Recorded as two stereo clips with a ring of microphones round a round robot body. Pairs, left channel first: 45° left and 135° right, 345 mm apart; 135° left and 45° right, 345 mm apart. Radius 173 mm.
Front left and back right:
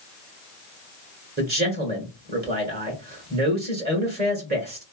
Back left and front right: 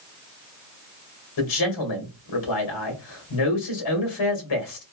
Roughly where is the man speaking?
Behind.